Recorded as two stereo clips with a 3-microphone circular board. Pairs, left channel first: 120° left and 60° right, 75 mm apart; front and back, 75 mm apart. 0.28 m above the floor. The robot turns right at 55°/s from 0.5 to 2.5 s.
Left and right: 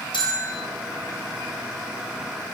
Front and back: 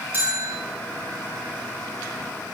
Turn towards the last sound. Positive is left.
turn(degrees=-135)